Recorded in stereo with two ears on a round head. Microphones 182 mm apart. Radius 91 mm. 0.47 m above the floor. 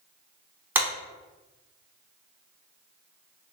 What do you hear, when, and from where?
0.8 s a clap: 10° right (ahead or behind), 0.6 m